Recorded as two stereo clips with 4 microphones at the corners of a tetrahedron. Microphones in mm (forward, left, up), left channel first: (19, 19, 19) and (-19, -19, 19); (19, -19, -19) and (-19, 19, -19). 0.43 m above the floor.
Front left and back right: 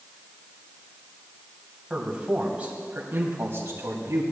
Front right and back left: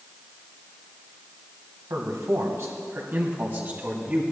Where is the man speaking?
150° left, 2.5 m; by 4.2 s 165° right, 3 m.